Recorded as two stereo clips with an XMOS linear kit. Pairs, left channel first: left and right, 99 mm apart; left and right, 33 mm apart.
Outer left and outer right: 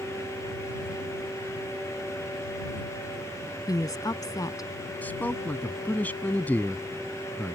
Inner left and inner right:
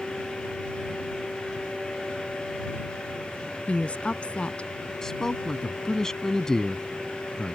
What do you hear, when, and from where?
3.7 s a woman speaking: 40° left (ahead or behind)
5.0 s a man speaking: 15° left (ahead or behind)